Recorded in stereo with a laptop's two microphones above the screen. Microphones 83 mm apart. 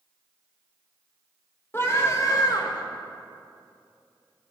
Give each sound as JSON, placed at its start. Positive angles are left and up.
{"t": 1.7, "sound": "a scream", "side_deg": 30, "distance_m": 2.5}